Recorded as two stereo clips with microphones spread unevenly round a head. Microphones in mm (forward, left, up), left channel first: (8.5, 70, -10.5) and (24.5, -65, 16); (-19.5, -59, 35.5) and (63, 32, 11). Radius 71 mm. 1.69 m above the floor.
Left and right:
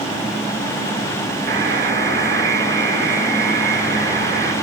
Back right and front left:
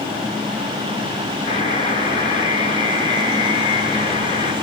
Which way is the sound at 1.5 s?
105° right.